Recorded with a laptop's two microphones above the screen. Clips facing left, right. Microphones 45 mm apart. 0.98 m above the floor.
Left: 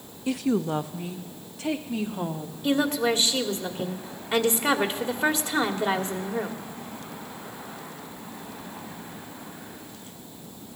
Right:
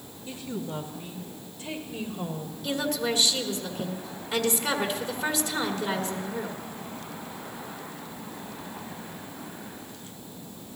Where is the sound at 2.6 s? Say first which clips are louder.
Left 5 dB; 35° left (ahead or behind), 2 m.